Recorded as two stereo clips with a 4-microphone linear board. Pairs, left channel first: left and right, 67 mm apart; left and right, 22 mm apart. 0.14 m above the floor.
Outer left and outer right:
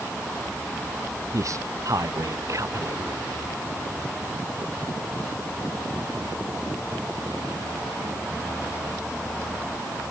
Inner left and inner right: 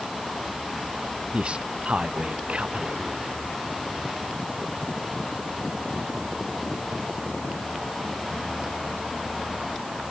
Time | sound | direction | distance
1.3 | a man speaking | 50° right (ahead or behind) | ?